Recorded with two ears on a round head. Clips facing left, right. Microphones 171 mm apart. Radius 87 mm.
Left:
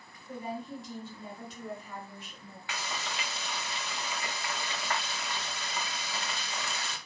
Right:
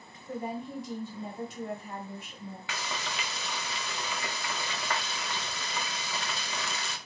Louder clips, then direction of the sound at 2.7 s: Even; 65° right (ahead or behind).